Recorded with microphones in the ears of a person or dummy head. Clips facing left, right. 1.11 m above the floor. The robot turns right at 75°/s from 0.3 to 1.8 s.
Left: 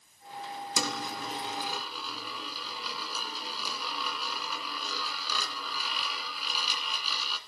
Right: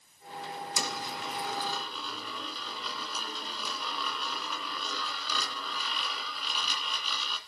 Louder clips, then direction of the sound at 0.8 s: Left 5 dB; 65° left (ahead or behind).